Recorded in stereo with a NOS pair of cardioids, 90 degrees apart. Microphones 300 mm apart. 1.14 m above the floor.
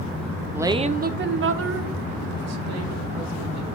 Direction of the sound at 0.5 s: 5° right.